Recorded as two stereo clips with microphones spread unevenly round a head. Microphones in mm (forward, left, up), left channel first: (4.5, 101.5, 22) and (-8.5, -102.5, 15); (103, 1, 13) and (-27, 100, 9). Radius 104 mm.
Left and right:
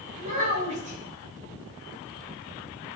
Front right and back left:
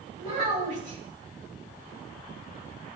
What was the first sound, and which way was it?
A child speaking, 150° right.